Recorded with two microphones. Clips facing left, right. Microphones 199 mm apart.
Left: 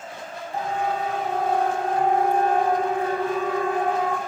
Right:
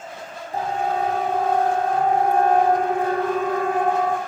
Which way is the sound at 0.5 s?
45° right (ahead or behind).